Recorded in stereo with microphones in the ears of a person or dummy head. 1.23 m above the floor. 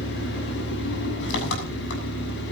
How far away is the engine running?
About 7 m.